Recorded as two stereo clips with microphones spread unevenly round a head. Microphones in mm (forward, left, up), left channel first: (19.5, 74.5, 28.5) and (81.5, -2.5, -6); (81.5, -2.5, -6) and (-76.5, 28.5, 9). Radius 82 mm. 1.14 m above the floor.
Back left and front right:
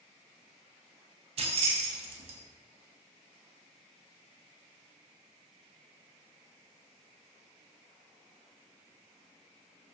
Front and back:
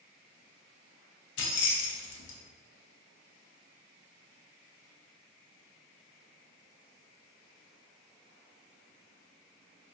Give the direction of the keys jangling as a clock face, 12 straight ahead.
1 o'clock.